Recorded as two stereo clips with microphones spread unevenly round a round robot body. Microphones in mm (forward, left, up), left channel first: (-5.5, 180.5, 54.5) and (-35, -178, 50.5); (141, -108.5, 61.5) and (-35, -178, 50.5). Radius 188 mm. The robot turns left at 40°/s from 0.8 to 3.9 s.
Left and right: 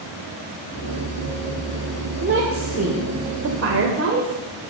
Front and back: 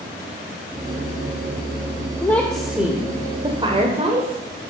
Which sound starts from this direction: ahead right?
A woman speaking, at 2.2 s.